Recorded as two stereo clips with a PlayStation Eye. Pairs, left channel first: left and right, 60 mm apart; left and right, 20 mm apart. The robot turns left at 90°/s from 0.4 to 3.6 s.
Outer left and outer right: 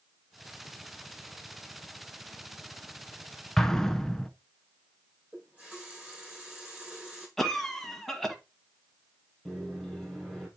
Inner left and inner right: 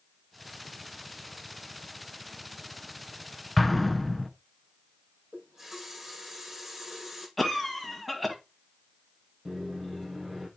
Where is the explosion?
5° left (ahead or behind), 0.7 m; by 4.3 s 10° left (ahead or behind), 0.7 m.